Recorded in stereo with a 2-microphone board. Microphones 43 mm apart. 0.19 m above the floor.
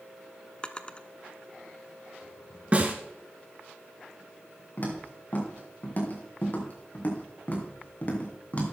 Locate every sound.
0.6 s a drawer: 25° left (ahead or behind), 0.7 m
2.7 s a snare drum: 35° right (ahead or behind), 2 m
4.8 s footsteps: 50° left (ahead or behind), 5 m; by 8.7 s 35° left (ahead or behind), 3 m